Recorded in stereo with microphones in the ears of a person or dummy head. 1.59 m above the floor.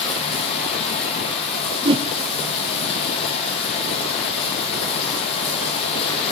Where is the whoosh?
25° right (ahead or behind), 0.9 m.